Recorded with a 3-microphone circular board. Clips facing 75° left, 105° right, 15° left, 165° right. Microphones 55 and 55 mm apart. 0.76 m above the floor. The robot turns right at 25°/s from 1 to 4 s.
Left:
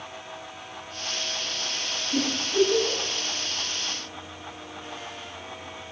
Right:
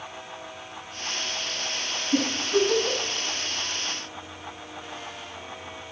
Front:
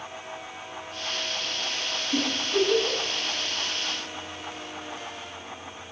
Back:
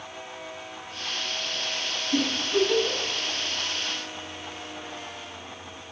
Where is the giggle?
90° right, 6 m; by 3.0 s 70° right, 6 m.